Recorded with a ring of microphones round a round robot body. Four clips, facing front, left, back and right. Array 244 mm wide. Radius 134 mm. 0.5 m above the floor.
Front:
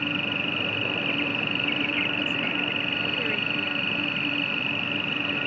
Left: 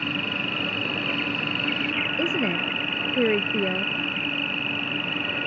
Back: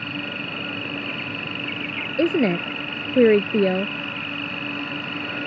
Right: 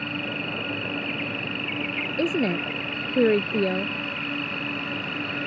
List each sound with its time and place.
0.0 s an insect: 65° left
2.2 s a woman speaking: 170° right